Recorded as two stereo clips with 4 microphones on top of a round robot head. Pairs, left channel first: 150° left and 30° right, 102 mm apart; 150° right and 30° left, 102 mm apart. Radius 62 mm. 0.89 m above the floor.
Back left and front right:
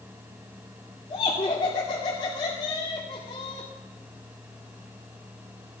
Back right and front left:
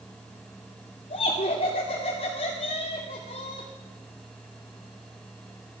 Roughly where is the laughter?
Behind.